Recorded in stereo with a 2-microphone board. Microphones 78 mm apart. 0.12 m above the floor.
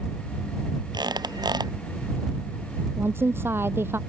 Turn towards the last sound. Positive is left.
turn(degrees=-35)  # may be behind; listen again after turning